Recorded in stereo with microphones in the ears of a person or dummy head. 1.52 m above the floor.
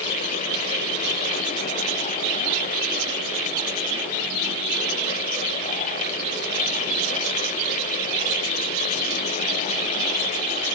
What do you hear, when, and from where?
Only background noise.